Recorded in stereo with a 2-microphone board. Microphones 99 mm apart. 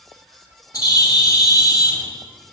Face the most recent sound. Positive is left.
turn(degrees=40)  # may be behind; listen again after turning